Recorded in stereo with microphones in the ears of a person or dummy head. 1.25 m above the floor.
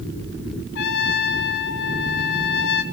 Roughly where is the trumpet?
Left.